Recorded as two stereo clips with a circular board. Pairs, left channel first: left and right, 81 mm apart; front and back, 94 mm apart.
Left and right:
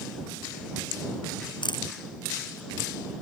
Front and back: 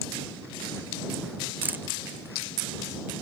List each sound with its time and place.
1.6 s a camera shutter: 110° left